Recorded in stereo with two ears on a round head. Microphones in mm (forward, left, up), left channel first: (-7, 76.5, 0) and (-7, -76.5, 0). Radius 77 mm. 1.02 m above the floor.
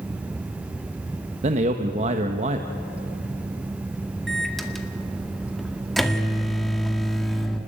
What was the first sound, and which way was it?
A man speaking, 40° right (ahead or behind).